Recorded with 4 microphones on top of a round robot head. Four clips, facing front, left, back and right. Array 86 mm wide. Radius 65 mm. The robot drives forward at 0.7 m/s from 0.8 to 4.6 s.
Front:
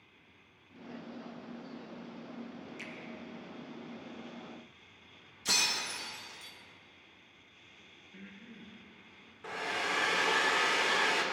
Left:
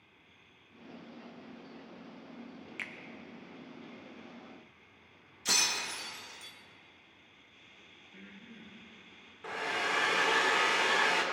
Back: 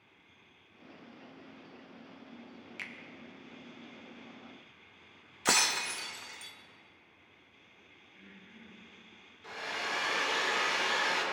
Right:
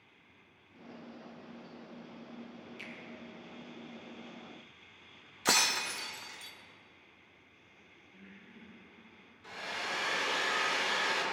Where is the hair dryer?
55° left, 1.8 m.